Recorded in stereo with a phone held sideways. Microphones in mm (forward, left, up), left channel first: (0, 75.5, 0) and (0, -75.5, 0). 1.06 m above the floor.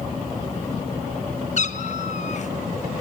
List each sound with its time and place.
1.6 s a cat meowing: 55° left (ahead or behind), 0.6 m